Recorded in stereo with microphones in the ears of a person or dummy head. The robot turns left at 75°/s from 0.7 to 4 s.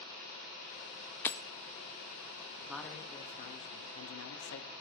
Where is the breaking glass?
10° left (ahead or behind), 0.7 m; by 1.4 s centre (ahead or behind), 0.7 m.